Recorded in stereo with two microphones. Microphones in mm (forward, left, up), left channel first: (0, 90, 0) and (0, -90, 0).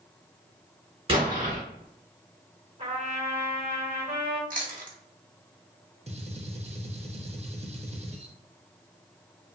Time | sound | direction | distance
1.1 | an explosion | 30° right (ahead or behind) | 1.4 m
2.8 | a trumpet | 35° right (ahead or behind) | 1.2 m
4.5 | chewing | 50° right (ahead or behind) | 0.8 m
6.1 | a gunshot | 35° right (ahead or behind) | 0.6 m